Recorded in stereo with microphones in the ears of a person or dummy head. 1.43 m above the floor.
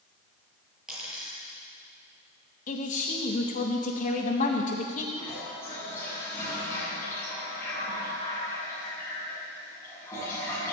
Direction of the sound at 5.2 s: 15° left (ahead or behind).